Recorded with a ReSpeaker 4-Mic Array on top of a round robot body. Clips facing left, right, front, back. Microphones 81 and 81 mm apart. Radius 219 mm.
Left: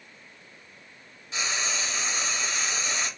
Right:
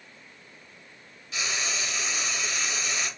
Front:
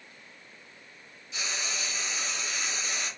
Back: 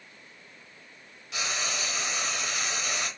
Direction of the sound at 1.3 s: 150° left.